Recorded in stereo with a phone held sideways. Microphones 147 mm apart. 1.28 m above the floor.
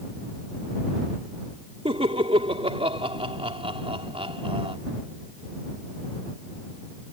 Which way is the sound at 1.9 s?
40° right (ahead or behind).